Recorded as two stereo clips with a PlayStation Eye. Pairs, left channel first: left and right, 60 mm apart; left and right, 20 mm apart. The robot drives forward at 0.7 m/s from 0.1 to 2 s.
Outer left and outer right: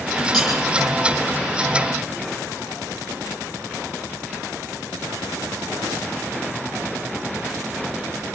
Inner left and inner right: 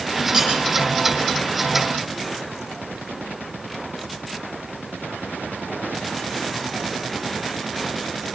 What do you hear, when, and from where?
0.3 s cutlery clinking: 5° right (ahead or behind), 9.5 m